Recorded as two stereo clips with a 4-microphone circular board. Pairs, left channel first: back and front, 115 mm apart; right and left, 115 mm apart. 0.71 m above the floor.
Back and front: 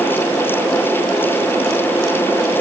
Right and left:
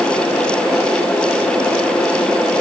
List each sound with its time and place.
Only background noise.